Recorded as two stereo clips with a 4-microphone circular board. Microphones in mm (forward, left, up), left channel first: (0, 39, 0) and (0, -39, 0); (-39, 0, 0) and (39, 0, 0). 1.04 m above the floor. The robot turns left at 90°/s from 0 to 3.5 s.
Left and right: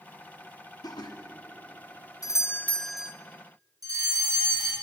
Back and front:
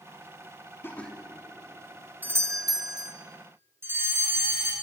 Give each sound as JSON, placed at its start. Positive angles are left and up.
{"t": 0.8, "sound": "laughter", "azimuth_deg": 120, "distance_m": 2.5}
{"t": 2.2, "sound": "a doorbell", "azimuth_deg": 60, "distance_m": 1.2}
{"t": 3.8, "sound": "a fire alarm", "azimuth_deg": -55, "distance_m": 6.5}